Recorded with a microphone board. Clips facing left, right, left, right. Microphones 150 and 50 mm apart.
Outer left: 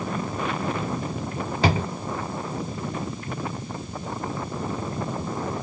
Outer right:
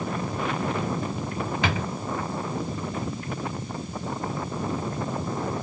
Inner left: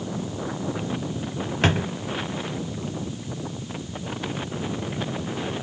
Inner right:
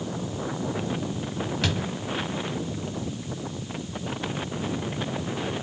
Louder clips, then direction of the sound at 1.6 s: Outer left 7 dB, inner left 8 dB; 35° left (ahead or behind).